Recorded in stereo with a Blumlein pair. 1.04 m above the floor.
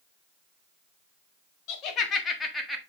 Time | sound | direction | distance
1.7 | laughter | 40° left | 1.8 m